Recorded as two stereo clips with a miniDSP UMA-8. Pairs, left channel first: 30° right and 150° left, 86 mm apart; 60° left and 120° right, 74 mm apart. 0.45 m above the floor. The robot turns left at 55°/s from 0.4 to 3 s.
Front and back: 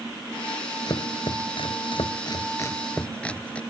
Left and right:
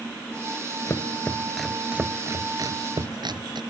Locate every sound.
0.9 s chopping: 10° left; by 3.6 s 105° right